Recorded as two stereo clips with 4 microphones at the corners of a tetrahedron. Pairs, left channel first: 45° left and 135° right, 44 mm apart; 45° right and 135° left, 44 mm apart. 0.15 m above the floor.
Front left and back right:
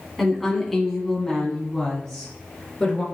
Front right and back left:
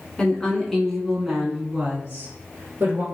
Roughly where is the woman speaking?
Ahead right.